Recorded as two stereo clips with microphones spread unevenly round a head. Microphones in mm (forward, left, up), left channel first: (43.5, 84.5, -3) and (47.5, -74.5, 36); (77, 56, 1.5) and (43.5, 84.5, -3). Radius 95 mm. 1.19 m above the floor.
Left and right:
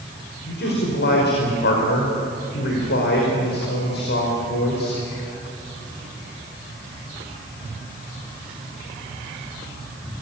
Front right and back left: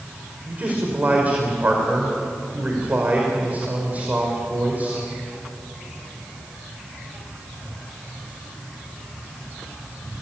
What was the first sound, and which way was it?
A man speaking, 85° left.